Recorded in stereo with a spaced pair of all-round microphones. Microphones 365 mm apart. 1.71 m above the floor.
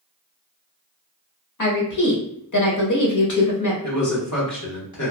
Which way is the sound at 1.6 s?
55° left (ahead or behind).